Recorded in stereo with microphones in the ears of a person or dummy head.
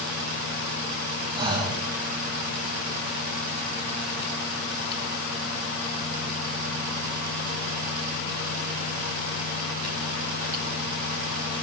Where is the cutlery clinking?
No cutlery clinking in this recording.